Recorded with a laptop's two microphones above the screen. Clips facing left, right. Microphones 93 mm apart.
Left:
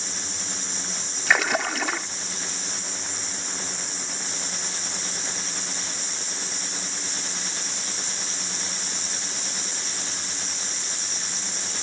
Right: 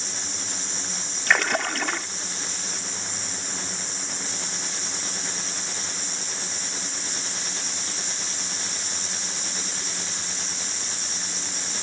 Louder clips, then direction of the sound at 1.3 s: Even; 5° left (ahead or behind).